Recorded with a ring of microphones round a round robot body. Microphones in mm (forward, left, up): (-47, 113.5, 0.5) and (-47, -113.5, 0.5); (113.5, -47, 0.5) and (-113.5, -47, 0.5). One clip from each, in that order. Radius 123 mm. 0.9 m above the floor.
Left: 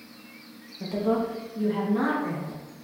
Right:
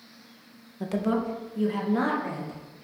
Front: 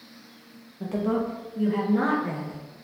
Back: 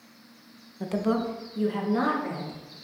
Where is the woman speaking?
130° right, 0.5 m; by 2.6 s 150° right, 1.7 m.